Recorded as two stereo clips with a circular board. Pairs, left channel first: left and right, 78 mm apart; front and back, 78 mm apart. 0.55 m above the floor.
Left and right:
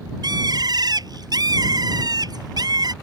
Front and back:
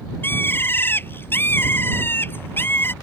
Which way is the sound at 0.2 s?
60° right.